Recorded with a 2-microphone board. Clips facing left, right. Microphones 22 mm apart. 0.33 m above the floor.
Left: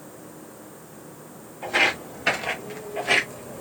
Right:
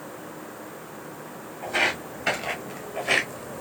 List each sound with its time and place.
1.6 s footsteps: 15° left (ahead or behind), 2.5 m; by 3.6 s centre (ahead or behind), 1.3 m